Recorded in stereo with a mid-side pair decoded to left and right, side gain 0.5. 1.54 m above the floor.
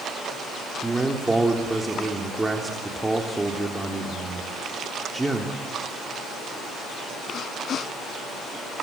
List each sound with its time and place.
0.8 s a man speaking: 15° right, 3.5 m